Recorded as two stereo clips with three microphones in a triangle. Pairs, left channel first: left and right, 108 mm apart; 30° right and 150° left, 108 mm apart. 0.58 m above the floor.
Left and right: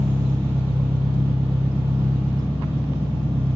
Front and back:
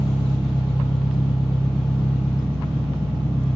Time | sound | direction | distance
0.0 | an engine running | 130° right | 0.9 m